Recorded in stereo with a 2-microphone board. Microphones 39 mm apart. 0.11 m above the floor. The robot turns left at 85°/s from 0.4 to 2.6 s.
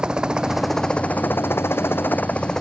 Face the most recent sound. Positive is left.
turn(degrees=15)